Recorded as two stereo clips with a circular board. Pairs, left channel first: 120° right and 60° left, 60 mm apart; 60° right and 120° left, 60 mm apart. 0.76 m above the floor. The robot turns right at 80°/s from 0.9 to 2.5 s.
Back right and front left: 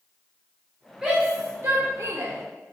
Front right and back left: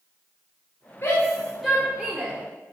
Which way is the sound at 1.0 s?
20° right.